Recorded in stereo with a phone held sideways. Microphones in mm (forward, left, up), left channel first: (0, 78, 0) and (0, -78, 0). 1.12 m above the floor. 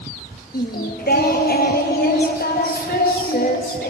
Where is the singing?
65° left (ahead or behind), 0.8 m.